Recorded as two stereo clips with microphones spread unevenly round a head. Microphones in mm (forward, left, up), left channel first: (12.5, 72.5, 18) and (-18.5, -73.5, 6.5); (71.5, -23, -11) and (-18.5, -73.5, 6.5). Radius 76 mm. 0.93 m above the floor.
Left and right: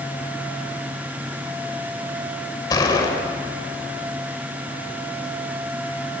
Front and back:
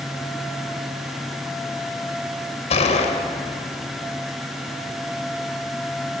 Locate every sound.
2.7 s a gunshot: 10° left, 3 m